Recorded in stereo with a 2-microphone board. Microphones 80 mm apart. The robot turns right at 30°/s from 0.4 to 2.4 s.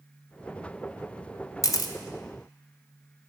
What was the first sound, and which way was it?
A camera shutter, 45° left (ahead or behind).